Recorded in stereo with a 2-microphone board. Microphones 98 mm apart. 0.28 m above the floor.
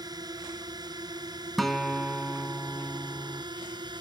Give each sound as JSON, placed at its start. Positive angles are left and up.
{"t": 0.0, "sound": "a drone", "side_deg": -45}
{"t": 1.6, "sound": "a guitar", "side_deg": 0}